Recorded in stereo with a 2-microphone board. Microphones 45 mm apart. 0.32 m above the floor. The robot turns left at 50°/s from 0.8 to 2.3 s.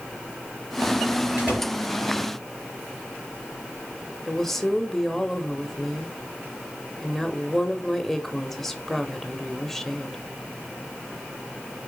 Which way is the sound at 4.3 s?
5° left (ahead or behind).